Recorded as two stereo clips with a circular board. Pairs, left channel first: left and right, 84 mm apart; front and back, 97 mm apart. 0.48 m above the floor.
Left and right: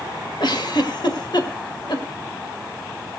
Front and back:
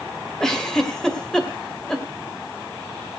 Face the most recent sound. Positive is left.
turn(degrees=85)